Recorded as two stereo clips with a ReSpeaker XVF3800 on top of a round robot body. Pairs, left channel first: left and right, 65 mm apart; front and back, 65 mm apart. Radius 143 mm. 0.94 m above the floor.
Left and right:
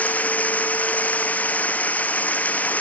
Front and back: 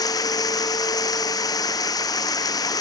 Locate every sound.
0.0 s running water: 25° left